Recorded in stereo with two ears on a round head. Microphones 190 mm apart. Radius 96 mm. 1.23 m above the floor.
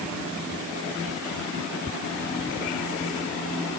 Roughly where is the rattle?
No rattle in this recording.